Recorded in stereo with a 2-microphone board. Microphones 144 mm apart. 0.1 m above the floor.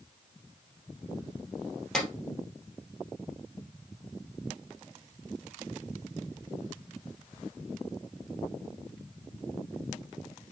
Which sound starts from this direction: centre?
A clap, at 1.9 s.